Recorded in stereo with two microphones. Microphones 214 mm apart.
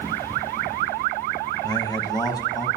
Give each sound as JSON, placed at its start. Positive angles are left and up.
{"t": 1.6, "sound": "a man speaking", "side_deg": 20, "distance_m": 1.0}